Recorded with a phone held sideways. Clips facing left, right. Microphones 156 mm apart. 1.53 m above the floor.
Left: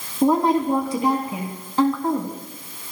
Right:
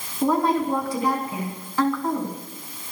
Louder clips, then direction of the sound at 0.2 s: Left 3 dB; 25° left (ahead or behind).